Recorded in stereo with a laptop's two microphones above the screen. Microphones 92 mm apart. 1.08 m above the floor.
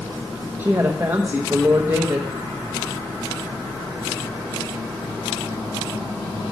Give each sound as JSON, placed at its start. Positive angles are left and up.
{"t": 0.6, "sound": "a woman speaking", "side_deg": -30, "distance_m": 0.9}